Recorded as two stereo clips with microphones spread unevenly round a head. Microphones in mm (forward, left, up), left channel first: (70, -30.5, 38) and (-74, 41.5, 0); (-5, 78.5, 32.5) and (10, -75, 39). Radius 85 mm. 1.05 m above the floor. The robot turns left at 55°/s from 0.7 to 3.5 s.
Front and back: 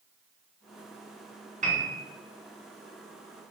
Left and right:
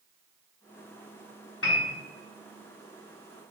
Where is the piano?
110° left, 3 m; by 2.0 s 90° left, 3 m.